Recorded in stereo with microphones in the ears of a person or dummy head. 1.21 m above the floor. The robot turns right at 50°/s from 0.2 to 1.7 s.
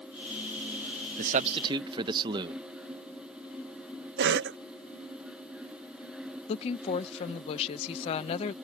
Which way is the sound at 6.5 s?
35° left (ahead or behind).